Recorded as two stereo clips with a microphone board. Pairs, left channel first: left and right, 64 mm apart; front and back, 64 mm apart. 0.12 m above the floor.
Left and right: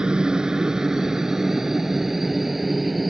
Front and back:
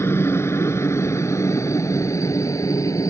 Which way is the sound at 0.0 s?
20° right.